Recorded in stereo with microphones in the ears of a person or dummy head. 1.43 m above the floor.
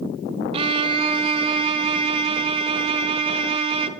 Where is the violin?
30° right (ahead or behind), 0.7 m.